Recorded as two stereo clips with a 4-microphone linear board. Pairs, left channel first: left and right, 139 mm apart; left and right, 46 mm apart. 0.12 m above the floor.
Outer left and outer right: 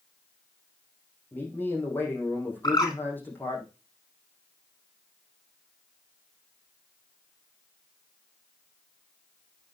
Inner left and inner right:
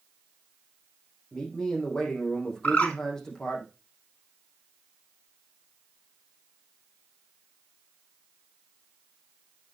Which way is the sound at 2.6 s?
30° left (ahead or behind).